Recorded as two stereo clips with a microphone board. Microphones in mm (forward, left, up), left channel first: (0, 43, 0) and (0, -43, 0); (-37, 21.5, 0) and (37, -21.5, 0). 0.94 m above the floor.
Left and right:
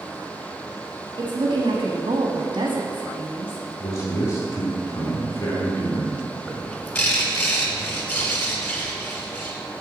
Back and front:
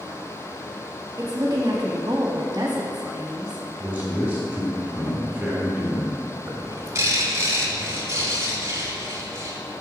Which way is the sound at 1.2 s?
75° right.